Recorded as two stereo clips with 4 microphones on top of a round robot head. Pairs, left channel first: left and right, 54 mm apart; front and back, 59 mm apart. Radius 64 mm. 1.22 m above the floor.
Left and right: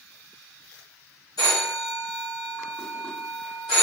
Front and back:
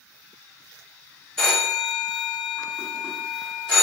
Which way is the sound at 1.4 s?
80° left.